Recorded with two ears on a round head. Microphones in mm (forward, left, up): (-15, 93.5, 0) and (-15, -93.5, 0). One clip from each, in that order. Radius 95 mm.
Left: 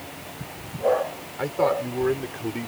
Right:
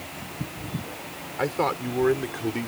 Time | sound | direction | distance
1.4 | a man speaking | 20° right (ahead or behind) | ?